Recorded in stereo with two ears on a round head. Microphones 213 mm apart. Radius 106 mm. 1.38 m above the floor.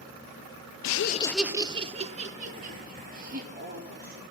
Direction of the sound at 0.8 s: 75° left (ahead or behind).